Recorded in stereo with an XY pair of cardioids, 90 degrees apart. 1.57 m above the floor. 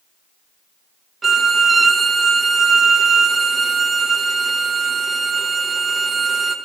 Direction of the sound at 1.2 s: 40° right.